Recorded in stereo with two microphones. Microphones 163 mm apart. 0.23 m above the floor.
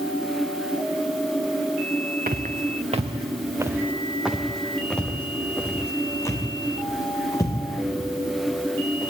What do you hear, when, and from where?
2.3 s footsteps: 65° right (ahead or behind), 1.4 m; by 9.1 s 25° left (ahead or behind), 6 m